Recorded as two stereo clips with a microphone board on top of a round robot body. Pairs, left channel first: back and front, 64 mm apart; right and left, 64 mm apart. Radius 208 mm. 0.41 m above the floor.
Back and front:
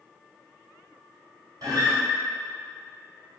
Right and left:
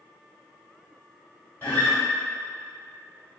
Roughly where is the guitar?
Ahead right.